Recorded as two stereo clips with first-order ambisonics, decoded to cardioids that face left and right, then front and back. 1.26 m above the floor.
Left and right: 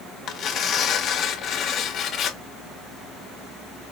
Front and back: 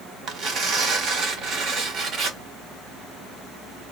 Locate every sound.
0.3 s tearing paper: 135° left, 1.1 m